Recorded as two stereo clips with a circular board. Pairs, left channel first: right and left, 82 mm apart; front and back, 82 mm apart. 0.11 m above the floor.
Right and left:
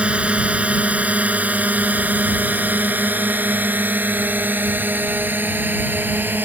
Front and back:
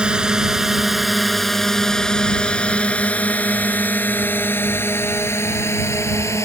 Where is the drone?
125° left; by 6.5 s 35° left.